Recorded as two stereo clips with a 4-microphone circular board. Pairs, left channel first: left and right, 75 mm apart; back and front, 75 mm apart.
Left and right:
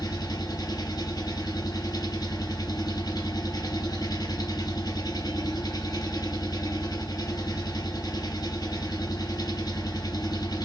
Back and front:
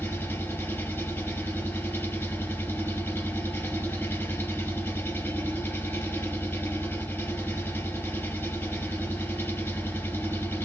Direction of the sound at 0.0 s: 115° left.